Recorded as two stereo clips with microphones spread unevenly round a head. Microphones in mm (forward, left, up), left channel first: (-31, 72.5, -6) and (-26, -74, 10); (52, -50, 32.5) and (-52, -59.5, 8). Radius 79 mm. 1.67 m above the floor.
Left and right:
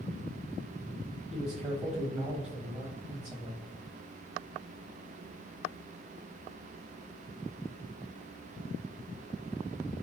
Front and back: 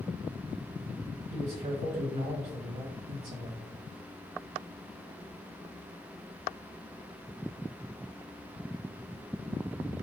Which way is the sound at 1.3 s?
155° right.